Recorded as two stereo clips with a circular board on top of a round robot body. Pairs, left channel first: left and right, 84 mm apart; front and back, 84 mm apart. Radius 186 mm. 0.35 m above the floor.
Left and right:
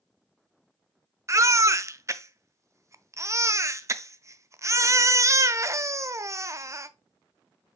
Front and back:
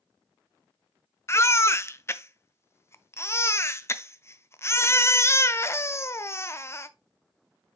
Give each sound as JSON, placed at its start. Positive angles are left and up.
{"t": 1.3, "sound": "a baby crying", "azimuth_deg": -50, "distance_m": 0.6}